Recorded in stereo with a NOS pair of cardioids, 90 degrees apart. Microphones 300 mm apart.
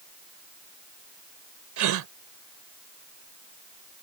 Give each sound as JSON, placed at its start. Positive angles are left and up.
{"t": 1.8, "sound": "a gasp", "azimuth_deg": -70}